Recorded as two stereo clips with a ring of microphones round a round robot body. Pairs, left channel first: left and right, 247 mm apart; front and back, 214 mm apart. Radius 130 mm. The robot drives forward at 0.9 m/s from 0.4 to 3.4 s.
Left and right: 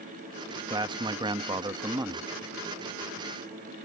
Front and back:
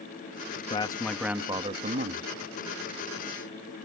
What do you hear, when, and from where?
0.7 s a man speaking: 35° right; by 2.3 s 165° right